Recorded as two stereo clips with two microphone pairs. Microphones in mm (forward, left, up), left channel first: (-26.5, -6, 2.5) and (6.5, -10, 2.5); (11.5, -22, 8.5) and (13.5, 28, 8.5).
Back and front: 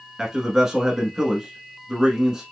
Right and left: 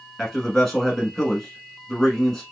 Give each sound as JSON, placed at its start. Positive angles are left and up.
{"t": 0.2, "sound": "a man speaking", "azimuth_deg": -25, "distance_m": 1.0}